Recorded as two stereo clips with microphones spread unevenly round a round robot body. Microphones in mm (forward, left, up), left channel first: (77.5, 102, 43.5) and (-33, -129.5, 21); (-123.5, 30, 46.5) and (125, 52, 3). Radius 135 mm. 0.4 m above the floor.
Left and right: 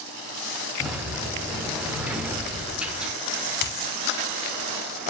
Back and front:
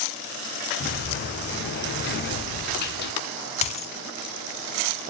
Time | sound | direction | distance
0.8 | a sliding door | 170° left | 0.9 m
3.6 | a dropped coin | 120° left | 0.6 m